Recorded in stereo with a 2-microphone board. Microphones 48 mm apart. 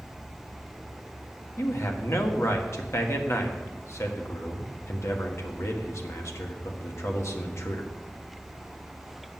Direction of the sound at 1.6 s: 65° left (ahead or behind).